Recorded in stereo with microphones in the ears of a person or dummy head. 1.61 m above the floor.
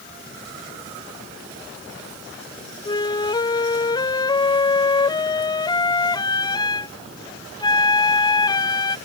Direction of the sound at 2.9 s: 25° left (ahead or behind).